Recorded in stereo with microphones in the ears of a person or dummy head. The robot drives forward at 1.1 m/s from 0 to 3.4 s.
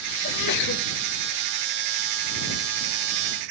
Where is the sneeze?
45° left (ahead or behind), 1.4 m; by 0.8 s 70° left (ahead or behind), 1.1 m.